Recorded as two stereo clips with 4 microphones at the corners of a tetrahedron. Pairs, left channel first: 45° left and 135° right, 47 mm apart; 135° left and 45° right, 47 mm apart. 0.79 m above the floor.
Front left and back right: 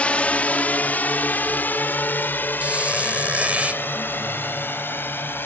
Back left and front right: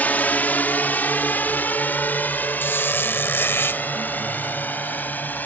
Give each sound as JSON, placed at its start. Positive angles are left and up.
{"t": 0.0, "sound": "a drone", "azimuth_deg": 100}
{"t": 2.6, "sound": "a squeak", "azimuth_deg": 170}